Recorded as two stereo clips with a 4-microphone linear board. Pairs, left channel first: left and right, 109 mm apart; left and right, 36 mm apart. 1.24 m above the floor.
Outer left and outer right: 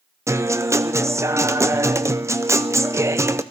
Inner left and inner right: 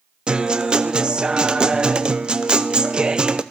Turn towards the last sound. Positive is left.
turn(degrees=-25)  # may be behind; listen again after turning